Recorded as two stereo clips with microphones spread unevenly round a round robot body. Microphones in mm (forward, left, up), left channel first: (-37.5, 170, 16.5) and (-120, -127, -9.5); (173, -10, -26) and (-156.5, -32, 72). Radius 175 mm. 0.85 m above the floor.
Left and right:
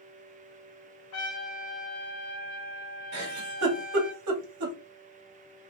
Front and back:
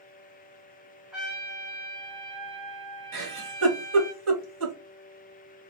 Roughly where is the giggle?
Behind right.